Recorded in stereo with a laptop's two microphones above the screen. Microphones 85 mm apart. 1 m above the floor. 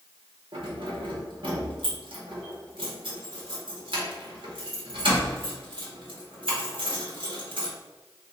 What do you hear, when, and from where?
0.5 s keys jangling: 75° right (ahead or behind), 1.0 m